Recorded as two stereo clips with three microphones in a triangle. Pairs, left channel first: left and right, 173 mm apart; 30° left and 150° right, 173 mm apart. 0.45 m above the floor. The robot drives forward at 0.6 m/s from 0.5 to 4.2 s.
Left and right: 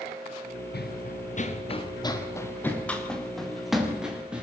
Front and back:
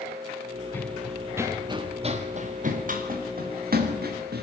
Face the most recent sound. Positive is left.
turn(degrees=-175)